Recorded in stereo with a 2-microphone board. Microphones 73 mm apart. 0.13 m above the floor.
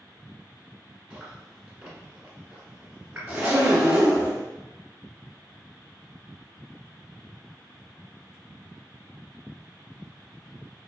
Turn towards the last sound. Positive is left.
turn(degrees=-20)  # may be behind; listen again after turning